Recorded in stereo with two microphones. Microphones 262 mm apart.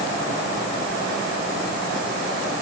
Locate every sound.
Only background noise.